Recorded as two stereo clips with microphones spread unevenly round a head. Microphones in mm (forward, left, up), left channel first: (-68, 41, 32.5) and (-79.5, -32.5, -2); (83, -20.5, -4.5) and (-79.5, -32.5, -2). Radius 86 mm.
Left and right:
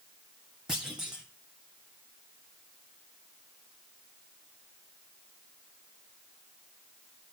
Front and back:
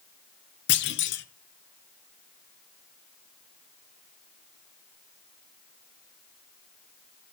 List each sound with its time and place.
0.7 s a clunk: 5° right, 0.8 m